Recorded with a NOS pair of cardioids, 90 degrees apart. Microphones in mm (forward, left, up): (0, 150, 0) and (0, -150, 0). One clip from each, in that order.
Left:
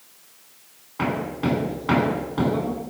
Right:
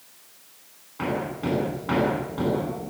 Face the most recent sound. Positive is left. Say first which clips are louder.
# left 2 dB
turn(degrees=40)